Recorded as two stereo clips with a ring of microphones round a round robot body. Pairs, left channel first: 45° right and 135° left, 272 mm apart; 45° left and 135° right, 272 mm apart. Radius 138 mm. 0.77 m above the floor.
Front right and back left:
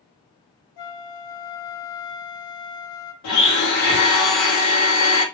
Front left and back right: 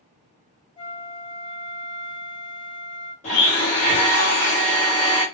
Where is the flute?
25° right, 0.7 m.